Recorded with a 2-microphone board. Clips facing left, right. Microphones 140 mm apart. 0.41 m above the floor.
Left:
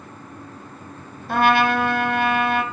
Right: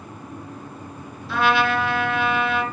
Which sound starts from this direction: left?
A trumpet, at 1.3 s.